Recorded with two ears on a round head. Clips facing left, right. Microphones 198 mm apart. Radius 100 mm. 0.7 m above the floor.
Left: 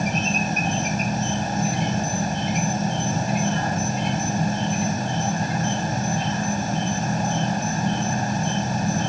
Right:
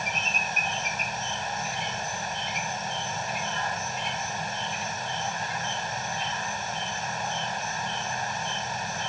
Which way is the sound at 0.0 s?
40° left (ahead or behind).